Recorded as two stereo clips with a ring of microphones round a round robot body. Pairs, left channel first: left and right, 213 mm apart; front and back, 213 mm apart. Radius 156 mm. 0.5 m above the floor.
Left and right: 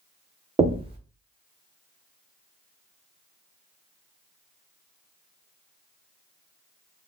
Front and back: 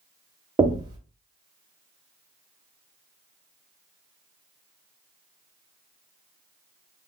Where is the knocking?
130° right, 0.6 m.